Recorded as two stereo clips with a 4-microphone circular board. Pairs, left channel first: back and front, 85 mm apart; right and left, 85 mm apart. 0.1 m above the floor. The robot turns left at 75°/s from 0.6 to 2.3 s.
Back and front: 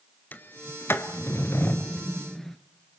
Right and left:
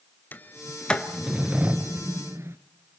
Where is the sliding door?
135° right, 0.9 m; by 2.6 s 100° left, 0.9 m.